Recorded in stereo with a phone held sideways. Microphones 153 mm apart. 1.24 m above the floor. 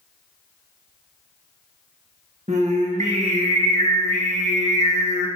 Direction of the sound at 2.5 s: 50° right (ahead or behind).